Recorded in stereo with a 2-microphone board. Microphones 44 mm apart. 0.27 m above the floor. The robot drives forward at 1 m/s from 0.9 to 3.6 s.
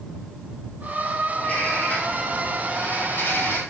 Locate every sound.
1.3 s a bird: 35° left (ahead or behind), 4 m; by 3.6 s 70° left (ahead or behind), 2.5 m